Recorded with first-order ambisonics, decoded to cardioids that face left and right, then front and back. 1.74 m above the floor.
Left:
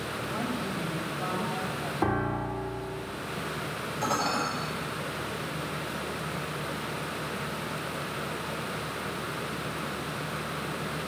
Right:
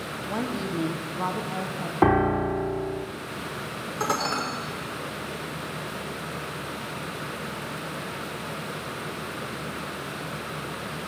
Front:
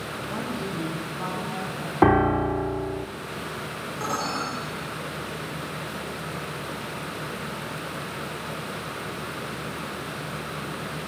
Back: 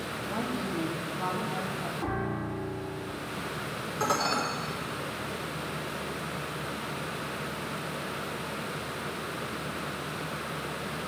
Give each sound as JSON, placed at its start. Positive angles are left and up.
{"t": 0.3, "sound": "a woman speaking", "azimuth_deg": -85, "distance_m": 1.4}
{"t": 2.0, "sound": "a piano", "azimuth_deg": -30, "distance_m": 0.5}
{"t": 4.0, "sound": "dishes clattering", "azimuth_deg": -105, "distance_m": 4.0}